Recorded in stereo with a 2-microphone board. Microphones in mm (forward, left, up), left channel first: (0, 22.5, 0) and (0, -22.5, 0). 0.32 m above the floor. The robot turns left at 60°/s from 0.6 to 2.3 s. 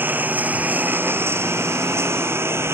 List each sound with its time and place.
0.0 s a lawn mower: 45° right (ahead or behind); by 2.8 s 75° right (ahead or behind)